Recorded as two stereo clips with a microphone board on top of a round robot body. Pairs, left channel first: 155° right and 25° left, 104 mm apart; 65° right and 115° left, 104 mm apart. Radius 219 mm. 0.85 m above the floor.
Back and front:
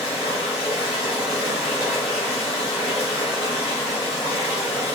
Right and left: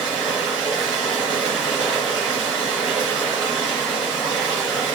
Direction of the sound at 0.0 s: 140° right.